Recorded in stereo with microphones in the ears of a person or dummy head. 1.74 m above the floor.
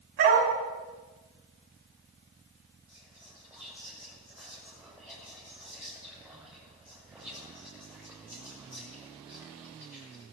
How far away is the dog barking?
About 5.5 m.